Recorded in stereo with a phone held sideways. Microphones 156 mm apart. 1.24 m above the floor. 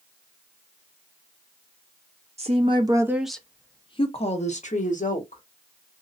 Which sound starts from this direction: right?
A woman speaking, at 2.4 s.